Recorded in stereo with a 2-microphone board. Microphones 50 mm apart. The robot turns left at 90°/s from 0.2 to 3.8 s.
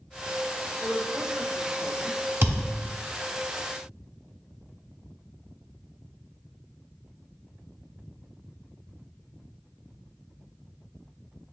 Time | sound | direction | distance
0.8 | a woman speaking | 50° right | 1.5 m
2.4 | a thud | 50° right (ahead or behind) | 0.8 m